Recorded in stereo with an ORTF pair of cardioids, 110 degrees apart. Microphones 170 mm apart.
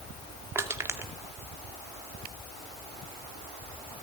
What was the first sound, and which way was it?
Crushing, 15° right.